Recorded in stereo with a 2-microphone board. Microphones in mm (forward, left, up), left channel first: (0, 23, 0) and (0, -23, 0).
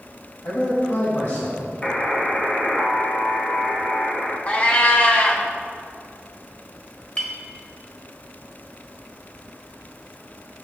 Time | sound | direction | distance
0.4 | a man speaking | 70° left (ahead or behind) | 3 m
1.8 | a buzzer | 25° left (ahead or behind) | 1.2 m
4.5 | a cat meowing | 35° left (ahead or behind) | 1.6 m
7.2 | a clink | 25° left (ahead or behind) | 1.2 m